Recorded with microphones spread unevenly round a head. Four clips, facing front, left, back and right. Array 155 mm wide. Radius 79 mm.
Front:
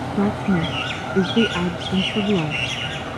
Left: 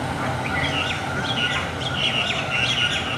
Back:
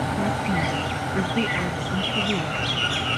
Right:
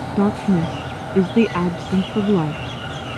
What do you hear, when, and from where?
0.2 s a woman speaking: 65° right